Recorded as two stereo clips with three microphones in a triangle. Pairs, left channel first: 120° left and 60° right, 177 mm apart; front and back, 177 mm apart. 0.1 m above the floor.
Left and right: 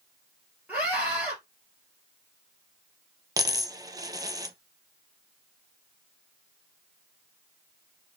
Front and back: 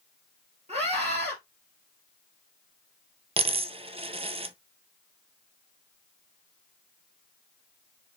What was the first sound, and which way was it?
A scream, 140° right.